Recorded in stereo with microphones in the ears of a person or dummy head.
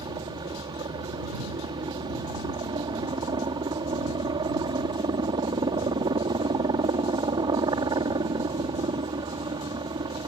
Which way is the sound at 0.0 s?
20° right (ahead or behind).